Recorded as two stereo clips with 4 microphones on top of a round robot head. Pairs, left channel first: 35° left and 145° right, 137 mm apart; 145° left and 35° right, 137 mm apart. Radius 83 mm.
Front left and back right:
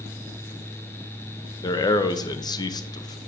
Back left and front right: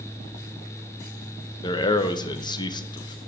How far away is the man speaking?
About 0.6 m.